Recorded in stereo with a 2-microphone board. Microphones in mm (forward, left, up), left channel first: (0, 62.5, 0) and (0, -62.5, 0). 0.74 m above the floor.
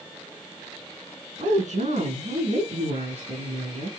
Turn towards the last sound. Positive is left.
turn(degrees=-70)  # may be behind; listen again after turning